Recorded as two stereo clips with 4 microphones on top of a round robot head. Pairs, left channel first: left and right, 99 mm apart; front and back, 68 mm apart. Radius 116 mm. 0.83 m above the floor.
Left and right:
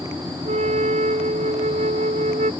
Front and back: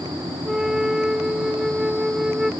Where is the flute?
95° right.